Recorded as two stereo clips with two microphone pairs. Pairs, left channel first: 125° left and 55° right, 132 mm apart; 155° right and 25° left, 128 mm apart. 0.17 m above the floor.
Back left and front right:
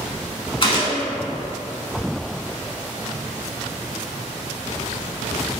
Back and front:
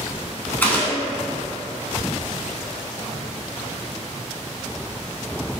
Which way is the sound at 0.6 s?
135° left.